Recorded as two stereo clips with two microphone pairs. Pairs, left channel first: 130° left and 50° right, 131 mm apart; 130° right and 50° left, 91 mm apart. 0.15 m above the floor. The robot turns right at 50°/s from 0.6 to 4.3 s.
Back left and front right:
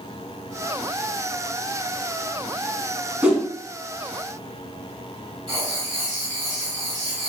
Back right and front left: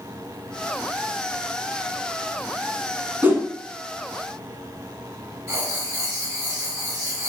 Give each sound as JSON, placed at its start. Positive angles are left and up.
{"t": 3.2, "sound": "a whoosh", "azimuth_deg": 20, "distance_m": 1.1}
{"t": 5.5, "sound": "writing", "azimuth_deg": 0, "distance_m": 1.6}